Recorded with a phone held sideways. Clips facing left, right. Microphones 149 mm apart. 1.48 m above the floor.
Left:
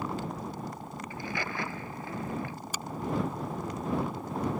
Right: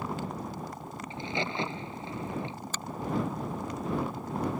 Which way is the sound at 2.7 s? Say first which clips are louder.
Even; 10° left (ahead or behind).